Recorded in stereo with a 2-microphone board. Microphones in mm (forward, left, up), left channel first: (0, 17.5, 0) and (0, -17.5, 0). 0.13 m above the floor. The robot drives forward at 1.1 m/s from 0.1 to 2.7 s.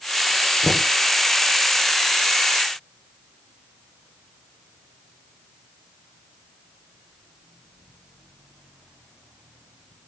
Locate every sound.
0.6 s knocking: 15° left (ahead or behind), 2.0 m